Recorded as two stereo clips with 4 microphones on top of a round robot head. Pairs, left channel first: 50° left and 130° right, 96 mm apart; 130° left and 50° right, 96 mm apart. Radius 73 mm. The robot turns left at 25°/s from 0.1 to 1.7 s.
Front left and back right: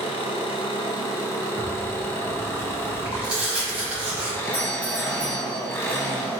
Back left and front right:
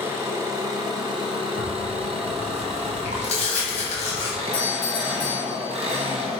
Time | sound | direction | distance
0.0 | an engine running | 25° left | 0.7 m
1.6 | tearing paper | 150° left | 1.1 m
4.5 | a doorbell | 130° left | 1.6 m